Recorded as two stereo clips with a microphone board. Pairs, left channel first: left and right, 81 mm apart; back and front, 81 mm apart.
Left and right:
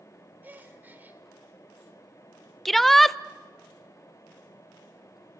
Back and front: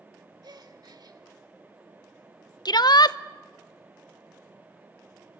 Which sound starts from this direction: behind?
A shout, at 2.6 s.